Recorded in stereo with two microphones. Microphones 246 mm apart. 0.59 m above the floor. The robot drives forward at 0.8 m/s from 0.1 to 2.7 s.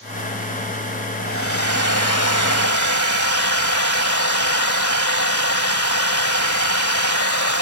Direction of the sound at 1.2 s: 60° left (ahead or behind).